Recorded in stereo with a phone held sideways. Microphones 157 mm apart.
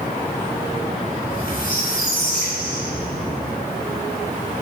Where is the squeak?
70° left (ahead or behind), 3 m.